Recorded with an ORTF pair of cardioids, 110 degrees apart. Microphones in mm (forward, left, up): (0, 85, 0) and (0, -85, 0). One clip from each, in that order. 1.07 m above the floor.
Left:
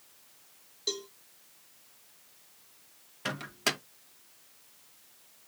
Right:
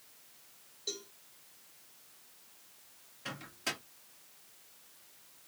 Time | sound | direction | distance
0.9 | a cowbell | 45° left | 1.6 m
3.2 | a microwave | 60° left | 1.2 m